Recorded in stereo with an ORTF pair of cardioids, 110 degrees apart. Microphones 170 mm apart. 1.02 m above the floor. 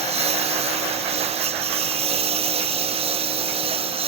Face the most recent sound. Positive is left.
turn(degrees=-35)